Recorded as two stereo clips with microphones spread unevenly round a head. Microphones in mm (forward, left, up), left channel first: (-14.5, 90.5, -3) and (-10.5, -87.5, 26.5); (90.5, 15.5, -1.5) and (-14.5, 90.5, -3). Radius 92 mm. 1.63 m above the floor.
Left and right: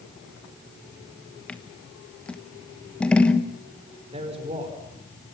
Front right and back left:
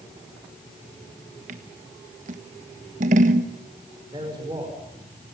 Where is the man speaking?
145° right, 5.5 m.